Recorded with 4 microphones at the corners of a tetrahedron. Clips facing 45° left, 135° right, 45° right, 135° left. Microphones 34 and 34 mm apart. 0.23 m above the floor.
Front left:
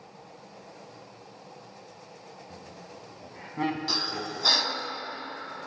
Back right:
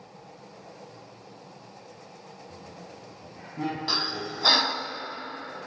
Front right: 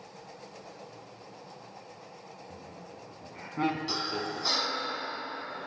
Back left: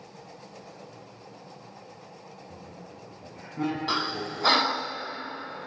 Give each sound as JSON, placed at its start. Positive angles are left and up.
{"t": 2.5, "sound": "laughter", "azimuth_deg": 10, "distance_m": 1.5}
{"t": 3.9, "sound": "breathing", "azimuth_deg": 160, "distance_m": 0.5}